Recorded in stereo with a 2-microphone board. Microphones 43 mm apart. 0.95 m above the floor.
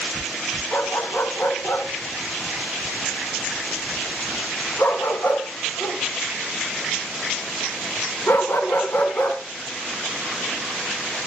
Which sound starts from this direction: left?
A dog barking, at 0.7 s.